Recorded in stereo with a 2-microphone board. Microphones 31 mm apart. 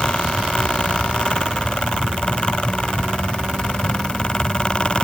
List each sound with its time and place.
Only background noise.